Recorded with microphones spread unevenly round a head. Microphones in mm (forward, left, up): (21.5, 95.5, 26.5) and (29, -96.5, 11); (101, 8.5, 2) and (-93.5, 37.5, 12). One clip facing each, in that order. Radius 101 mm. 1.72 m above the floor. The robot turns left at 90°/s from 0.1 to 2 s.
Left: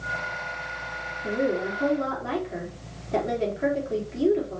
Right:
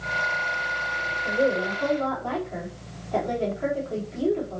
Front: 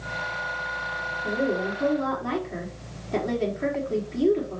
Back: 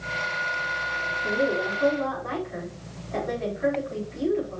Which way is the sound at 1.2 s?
100° left.